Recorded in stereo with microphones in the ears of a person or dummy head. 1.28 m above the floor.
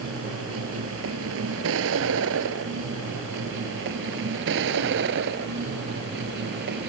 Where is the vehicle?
80° right; by 6.9 s 60° right (ahead or behind).